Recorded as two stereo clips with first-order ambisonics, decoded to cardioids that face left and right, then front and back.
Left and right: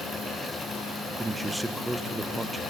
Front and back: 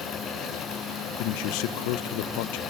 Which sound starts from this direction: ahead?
A man speaking, at 1.2 s.